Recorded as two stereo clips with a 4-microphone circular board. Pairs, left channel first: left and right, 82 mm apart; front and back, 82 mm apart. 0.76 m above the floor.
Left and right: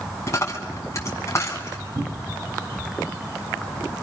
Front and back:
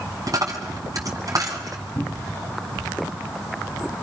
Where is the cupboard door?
65° right, 4.5 m.